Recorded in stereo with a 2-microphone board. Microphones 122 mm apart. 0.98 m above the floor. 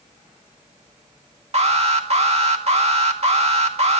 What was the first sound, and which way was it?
An alarm, 60° right (ahead or behind).